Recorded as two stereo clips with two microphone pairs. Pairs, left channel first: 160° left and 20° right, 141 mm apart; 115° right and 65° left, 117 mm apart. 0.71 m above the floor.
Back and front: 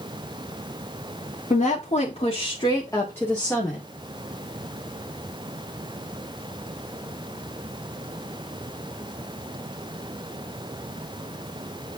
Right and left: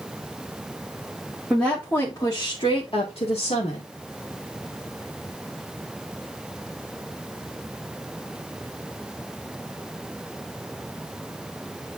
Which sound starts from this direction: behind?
A woman speaking, at 1.5 s.